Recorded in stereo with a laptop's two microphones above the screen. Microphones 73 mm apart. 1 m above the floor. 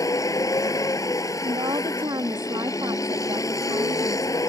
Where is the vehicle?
45° left (ahead or behind).